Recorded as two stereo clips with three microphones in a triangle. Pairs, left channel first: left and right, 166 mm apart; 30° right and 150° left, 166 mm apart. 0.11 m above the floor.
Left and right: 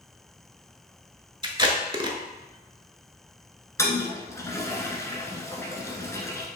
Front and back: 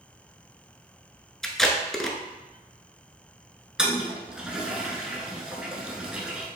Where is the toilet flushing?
75° left, 0.7 m.